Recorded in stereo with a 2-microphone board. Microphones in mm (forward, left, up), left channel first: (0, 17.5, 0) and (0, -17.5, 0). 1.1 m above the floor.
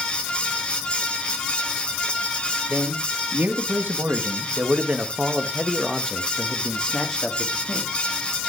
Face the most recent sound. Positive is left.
turn(degrees=25)  # may be behind; listen again after turning